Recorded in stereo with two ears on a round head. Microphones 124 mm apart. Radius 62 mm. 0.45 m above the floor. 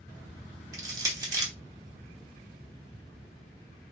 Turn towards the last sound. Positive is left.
turn(degrees=-25)  # may be behind; listen again after turning